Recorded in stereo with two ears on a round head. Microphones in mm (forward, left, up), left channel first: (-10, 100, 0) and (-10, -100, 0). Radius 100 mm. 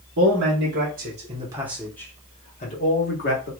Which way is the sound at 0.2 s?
60° right (ahead or behind).